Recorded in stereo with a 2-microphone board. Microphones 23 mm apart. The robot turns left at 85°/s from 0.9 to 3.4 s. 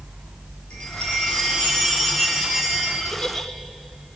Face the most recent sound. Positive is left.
turn(degrees=10)  # may be behind; listen again after turning